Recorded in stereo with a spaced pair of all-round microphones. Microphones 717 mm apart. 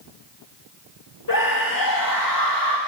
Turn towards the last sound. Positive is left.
turn(degrees=30)  # may be behind; listen again after turning